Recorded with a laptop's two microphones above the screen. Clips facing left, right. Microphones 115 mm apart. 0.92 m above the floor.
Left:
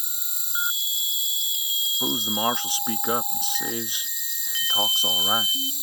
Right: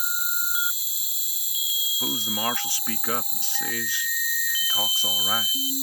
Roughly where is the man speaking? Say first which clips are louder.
Left 4 dB; centre.